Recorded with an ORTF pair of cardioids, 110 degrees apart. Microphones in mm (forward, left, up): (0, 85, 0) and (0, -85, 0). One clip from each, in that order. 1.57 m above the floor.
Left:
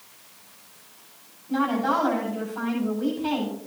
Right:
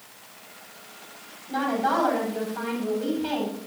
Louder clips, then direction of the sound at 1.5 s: Even; 10° right.